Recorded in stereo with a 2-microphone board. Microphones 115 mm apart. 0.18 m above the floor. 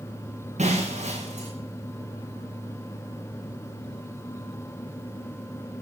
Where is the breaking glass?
80° right, 5 m.